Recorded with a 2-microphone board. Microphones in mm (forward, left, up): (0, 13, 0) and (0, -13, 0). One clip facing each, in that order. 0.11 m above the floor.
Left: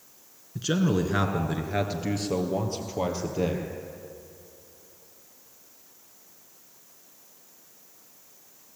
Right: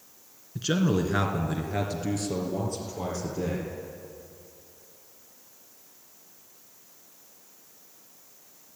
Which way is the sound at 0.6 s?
15° right (ahead or behind).